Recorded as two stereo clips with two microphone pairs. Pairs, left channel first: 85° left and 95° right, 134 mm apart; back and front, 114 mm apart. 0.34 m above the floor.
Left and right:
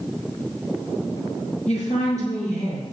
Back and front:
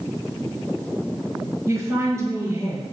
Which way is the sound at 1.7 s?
65° left.